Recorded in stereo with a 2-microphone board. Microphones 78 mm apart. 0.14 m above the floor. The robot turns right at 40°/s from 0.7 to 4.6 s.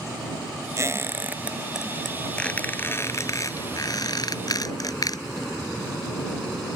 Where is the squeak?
40° right (ahead or behind); by 5.5 s 55° left (ahead or behind).